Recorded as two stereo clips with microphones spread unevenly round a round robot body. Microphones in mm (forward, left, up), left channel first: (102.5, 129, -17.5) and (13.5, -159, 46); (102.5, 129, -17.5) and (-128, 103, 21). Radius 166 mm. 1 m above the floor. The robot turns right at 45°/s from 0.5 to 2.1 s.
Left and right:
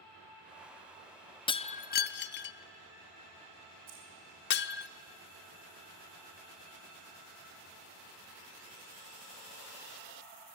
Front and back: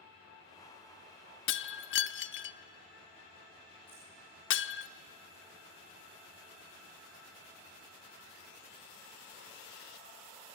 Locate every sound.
1.5 s breaking glass: 10° right, 0.5 m; by 4.9 s 20° left, 0.5 m
3.9 s keys jangling: 80° right, 7 m